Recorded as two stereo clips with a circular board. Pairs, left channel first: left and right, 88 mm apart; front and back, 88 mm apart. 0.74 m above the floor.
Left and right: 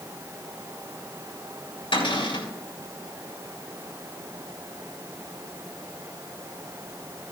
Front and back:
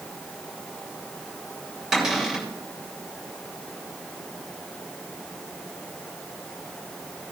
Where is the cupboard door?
95° left, 5.5 m.